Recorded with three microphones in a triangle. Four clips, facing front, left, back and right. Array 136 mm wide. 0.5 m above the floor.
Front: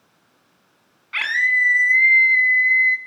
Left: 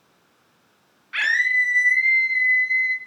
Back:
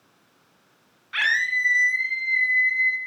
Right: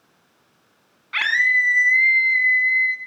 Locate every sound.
1.1 s a scream: 65° right, 5.5 m; by 3.0 s 80° right, 5 m